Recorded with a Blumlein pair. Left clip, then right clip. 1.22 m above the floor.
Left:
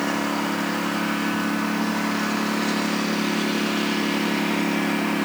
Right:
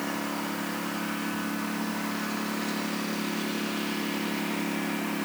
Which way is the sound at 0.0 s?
20° left.